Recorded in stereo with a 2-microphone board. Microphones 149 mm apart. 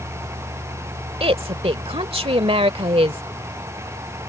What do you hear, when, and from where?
1.2 s a woman speaking: 40° right (ahead or behind)